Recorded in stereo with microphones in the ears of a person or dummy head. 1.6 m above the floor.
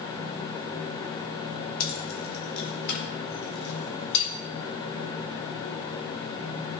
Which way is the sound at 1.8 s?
50° left (ahead or behind).